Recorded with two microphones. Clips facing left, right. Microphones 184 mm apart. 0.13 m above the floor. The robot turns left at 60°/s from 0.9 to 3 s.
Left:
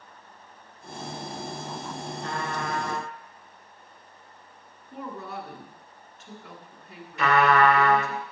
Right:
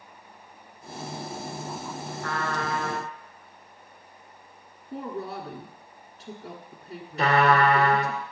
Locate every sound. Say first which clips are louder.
2.2 s a trumpet: right 2 dB; 50° left, 2.0 m; by 3.1 s straight ahead, 2.0 m
4.9 s a woman speaking: right 3 dB; 35° right (ahead or behind), 1.2 m
7.2 s a trumpet: even; 35° right (ahead or behind), 1.2 m